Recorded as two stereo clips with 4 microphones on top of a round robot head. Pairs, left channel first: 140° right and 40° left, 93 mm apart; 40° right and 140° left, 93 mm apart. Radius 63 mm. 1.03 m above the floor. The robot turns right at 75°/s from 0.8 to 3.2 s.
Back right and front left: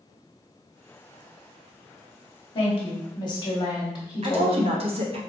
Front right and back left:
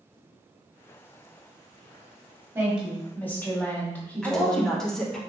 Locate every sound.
2.5 s a woman speaking: 155° right, 1.2 m; by 4.7 s 110° right, 1.2 m
4.2 s a woman speaking: 45° left, 0.8 m